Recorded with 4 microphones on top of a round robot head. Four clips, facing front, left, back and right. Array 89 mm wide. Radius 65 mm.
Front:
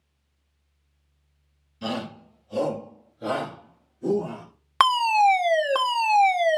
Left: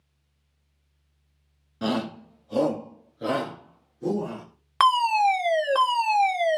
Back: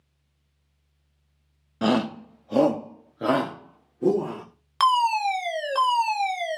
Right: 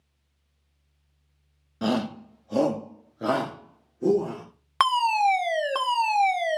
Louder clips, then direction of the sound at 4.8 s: Left 2 dB, front 2 dB; straight ahead.